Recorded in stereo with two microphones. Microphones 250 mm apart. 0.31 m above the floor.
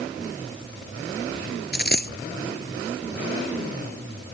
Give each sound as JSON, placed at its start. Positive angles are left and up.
{"t": 1.7, "sound": "a dropped coin", "side_deg": 40}